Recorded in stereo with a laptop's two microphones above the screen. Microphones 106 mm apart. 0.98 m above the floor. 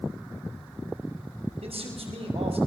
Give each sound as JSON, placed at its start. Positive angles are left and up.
{"t": 1.6, "sound": "a man speaking", "side_deg": -85, "distance_m": 5.5}